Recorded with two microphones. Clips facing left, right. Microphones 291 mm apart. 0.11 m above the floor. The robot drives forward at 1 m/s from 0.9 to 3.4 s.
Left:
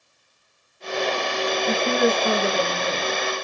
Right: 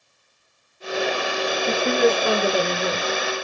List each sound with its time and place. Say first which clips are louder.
1.7 s a woman speaking: right 2 dB; 30° right (ahead or behind), 1.1 m; by 3.3 s 15° right (ahead or behind), 2 m